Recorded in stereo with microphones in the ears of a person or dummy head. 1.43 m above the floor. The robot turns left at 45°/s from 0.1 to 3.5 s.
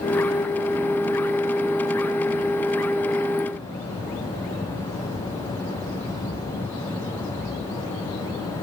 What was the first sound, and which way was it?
Only background noise.